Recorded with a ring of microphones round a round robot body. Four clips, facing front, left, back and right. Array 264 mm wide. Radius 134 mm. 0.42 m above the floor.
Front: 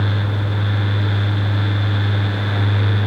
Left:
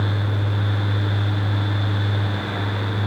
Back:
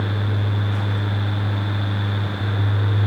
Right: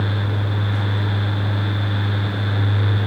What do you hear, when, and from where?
Only background noise.